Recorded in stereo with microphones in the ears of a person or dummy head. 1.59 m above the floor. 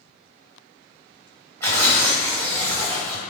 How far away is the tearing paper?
About 1.2 m.